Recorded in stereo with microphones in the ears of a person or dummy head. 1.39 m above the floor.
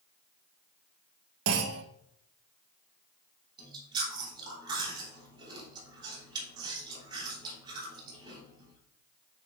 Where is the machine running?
No machine running in this recording.